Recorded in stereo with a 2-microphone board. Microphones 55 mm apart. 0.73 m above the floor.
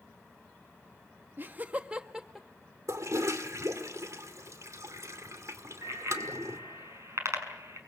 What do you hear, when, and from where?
1.4 s laughter: 40° right (ahead or behind), 1.0 m; by 2.5 s centre (ahead or behind), 1.0 m
2.9 s a toilet flushing: 70° right (ahead or behind), 2 m
5.8 s a bicycle bell: 60° right (ahead or behind), 6 m